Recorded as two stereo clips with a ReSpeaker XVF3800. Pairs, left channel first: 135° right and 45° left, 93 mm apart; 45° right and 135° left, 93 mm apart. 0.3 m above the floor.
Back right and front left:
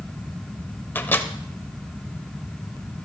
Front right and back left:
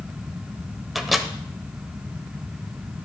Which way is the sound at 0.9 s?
140° right.